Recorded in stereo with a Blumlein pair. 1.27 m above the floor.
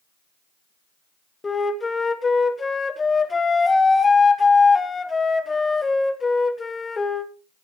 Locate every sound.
1.4 s a flute: 15° left, 0.8 m